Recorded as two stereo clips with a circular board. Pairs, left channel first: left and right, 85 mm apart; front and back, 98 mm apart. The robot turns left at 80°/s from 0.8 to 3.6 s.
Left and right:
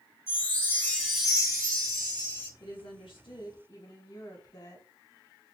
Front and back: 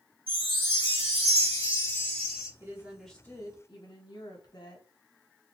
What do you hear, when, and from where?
0.3 s a chime: 30° left, 1.9 m; by 2.5 s 105° right, 1.9 m
2.6 s a woman speaking: 125° left, 1.2 m; by 4.9 s 45° left, 1.2 m